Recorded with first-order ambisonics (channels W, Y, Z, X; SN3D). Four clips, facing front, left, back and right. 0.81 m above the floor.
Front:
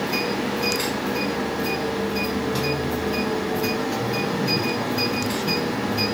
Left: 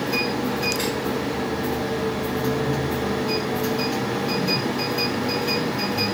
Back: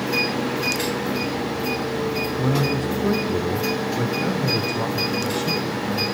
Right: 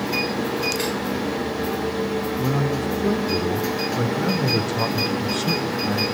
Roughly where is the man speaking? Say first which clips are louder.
Even, back 2 dB; behind.